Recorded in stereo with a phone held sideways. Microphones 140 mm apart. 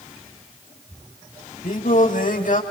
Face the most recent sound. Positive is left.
turn(degrees=70)  # may be behind; listen again after turning